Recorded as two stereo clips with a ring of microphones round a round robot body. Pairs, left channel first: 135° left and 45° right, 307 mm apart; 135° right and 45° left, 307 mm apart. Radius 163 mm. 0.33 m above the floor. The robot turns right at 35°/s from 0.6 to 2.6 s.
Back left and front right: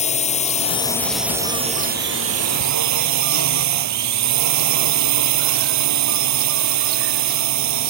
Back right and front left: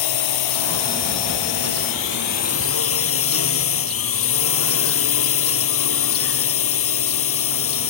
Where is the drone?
155° right; by 7.9 s 85° right.